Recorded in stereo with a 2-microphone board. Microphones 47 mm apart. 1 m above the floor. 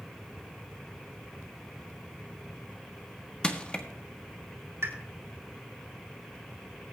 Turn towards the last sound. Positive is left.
turn(degrees=-75)  # may be behind; listen again after turning